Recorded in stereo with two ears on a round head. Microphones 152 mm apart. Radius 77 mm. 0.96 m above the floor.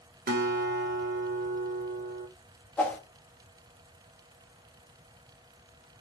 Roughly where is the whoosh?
Centre.